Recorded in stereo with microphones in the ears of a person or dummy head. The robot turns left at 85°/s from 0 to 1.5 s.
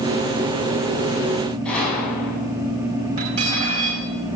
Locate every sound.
1.6 s a gunshot: 10° left (ahead or behind), 5.5 m
3.2 s cutlery clinking: 55° right (ahead or behind), 4.5 m